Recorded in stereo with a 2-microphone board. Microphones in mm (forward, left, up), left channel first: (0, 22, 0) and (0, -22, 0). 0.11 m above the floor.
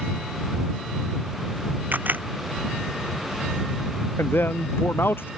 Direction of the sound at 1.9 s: 45° right (ahead or behind).